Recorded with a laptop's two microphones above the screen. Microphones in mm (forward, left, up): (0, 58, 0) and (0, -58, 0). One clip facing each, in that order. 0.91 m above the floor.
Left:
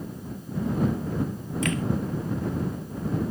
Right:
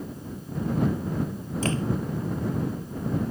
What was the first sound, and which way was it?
A door slam, 30° right (ahead or behind).